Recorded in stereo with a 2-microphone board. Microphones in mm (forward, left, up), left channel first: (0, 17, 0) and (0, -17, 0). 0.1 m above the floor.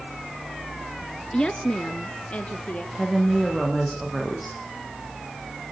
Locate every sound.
1.3 s a woman speaking: 25° left (ahead or behind), 1.2 m; by 2.9 s 45° left (ahead or behind), 2.5 m
3.0 s a woman speaking: centre (ahead or behind), 5.5 m